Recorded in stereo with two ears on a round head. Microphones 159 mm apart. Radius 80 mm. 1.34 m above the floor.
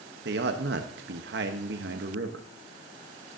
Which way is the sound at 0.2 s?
65° right (ahead or behind).